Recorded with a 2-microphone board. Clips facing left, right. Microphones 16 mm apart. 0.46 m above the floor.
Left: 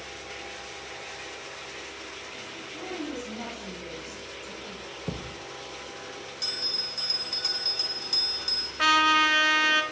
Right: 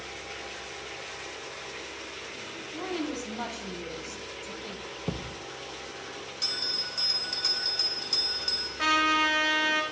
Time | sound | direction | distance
2.7 | a woman speaking | 35° right (ahead or behind) | 2.5 m
5.1 | a thud | 15° right (ahead or behind) | 0.7 m
6.4 | a bell | 5° right (ahead or behind) | 1.4 m
8.8 | a trumpet | 25° left (ahead or behind) | 1.1 m